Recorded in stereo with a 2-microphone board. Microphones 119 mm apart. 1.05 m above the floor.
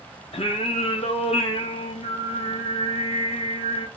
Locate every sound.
0.3 s singing: 60° left (ahead or behind), 0.9 m